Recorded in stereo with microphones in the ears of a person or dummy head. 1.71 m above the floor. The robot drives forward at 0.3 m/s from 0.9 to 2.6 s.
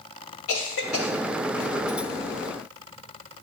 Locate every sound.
0.5 s a cough: 75° left (ahead or behind), 1.7 m